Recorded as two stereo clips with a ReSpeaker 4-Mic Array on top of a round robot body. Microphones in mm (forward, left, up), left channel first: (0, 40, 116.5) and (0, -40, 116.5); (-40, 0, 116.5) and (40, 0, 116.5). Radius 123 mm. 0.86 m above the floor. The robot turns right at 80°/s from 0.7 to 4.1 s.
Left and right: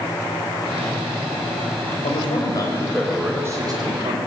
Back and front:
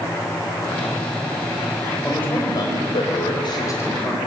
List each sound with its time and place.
2.0 s a man speaking: 95° left, 5 m; by 4.2 s 100° right, 5 m